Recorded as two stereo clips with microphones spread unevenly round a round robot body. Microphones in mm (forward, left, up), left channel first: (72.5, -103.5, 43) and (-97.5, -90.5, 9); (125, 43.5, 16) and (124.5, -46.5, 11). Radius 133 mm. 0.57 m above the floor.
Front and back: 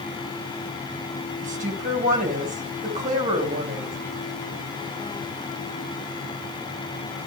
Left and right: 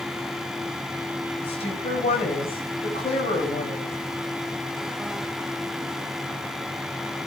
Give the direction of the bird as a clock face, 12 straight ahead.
I don't hear a bird.